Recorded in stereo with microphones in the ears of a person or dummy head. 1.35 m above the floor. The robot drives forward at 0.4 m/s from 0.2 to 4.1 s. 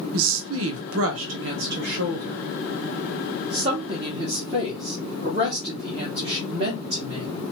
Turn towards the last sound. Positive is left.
turn(degrees=-25)  # may be behind; listen again after turning